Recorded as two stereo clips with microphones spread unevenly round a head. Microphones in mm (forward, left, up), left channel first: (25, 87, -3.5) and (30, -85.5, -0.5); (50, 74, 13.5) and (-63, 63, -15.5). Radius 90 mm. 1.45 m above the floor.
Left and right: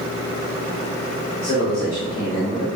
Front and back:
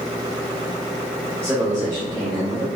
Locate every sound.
1.4 s a man speaking: 120° left, 1.9 m; by 2.6 s 135° left, 3.5 m